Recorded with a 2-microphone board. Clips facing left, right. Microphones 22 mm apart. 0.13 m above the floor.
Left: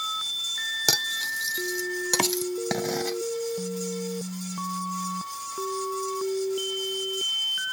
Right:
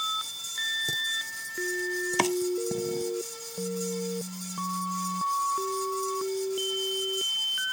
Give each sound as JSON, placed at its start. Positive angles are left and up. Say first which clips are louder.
{"t": 0.9, "sound": "cutlery clinking", "louder": "left 4 dB", "side_deg": 65}
{"t": 2.2, "sound": "chopping", "louder": "right 1 dB", "side_deg": -10}